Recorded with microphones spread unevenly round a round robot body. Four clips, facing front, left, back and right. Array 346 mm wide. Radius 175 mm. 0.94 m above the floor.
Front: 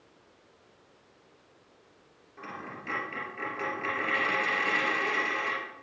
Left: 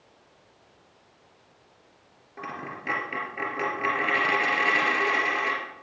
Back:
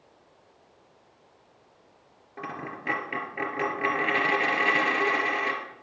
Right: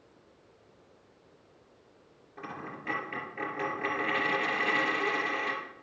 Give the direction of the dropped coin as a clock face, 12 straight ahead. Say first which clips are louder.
Left 5 dB, back 5 dB; 7 o'clock.